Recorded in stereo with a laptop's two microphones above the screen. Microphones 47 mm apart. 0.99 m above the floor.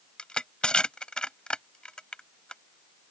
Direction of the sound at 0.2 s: 25° left (ahead or behind).